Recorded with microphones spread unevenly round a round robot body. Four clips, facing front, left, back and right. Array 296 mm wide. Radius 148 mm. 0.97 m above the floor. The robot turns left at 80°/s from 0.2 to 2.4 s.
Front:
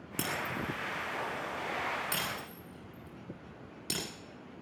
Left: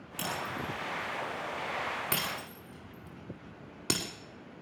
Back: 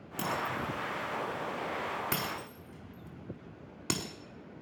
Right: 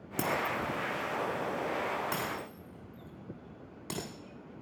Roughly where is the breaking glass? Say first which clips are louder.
Right 5 dB, back 2 dB; ahead right.